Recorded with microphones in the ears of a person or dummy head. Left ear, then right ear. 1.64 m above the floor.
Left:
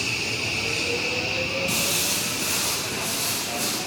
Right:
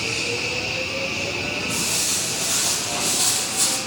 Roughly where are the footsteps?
Left.